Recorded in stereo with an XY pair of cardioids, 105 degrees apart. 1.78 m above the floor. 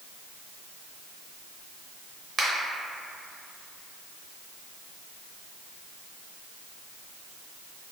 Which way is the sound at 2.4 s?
35° right.